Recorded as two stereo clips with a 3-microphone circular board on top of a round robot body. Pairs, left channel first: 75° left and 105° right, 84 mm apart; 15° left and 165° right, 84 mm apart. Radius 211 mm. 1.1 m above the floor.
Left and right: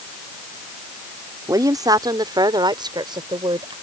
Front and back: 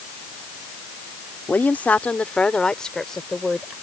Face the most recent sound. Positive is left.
turn(degrees=-70)